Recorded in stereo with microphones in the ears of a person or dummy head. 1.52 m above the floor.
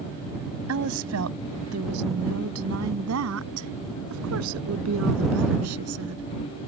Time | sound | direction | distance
0.7 | a woman speaking | 85° right | ?